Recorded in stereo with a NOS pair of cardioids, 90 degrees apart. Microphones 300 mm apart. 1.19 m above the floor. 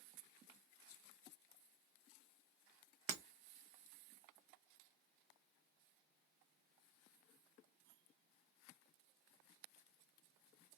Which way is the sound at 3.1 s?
45° right.